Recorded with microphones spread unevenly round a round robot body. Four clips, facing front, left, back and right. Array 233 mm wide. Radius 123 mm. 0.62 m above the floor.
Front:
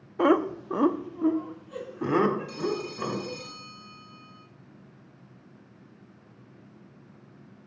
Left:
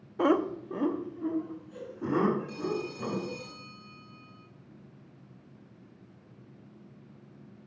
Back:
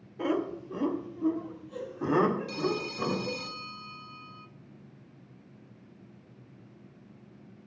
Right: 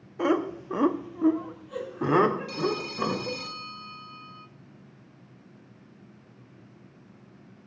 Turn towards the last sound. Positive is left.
turn(degrees=-110)